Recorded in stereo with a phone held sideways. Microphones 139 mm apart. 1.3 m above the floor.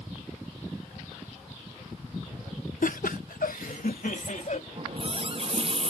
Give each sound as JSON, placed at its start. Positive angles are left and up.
{"t": 2.8, "sound": "laughter", "side_deg": 70}
{"t": 4.8, "sound": "a running tap", "side_deg": -45}